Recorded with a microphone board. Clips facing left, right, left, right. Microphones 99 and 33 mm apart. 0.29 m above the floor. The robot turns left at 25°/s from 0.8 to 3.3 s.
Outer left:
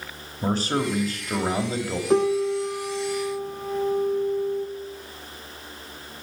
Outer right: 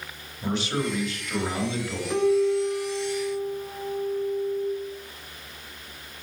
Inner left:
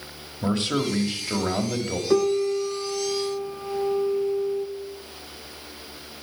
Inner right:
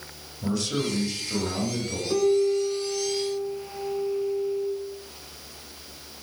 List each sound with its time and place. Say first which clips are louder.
0.4 s a man speaking: outer left 3 dB, inner left 3 dB; 95° left, 1.2 m; by 2.0 s 65° left, 1.2 m
2.1 s a piano: even, even; 145° left, 0.6 m; by 4.7 s 115° left, 0.6 m